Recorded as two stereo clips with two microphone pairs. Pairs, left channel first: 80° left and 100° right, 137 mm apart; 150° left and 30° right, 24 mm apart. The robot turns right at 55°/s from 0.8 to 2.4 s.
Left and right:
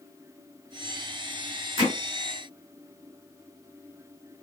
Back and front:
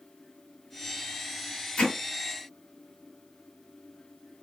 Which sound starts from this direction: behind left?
Hammering, at 1.8 s.